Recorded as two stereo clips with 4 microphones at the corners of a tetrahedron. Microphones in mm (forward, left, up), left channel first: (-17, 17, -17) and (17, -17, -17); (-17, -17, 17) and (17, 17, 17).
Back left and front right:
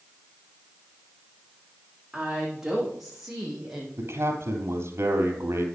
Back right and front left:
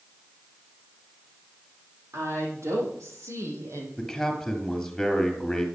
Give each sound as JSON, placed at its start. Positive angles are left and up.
{"t": 2.1, "sound": "a woman speaking", "azimuth_deg": 40, "distance_m": 7.0}
{"t": 4.0, "sound": "a man speaking", "azimuth_deg": -50, "distance_m": 3.0}